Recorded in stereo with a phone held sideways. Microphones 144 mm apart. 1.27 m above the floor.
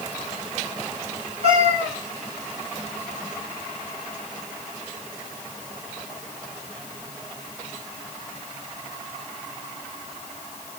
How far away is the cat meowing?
About 1.6 m.